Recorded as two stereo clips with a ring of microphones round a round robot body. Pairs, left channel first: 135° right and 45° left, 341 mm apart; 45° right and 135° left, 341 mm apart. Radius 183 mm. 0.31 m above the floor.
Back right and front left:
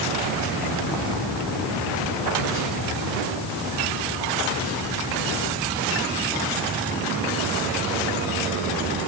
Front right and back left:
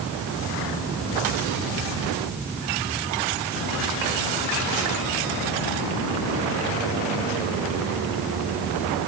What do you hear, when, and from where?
Only background noise.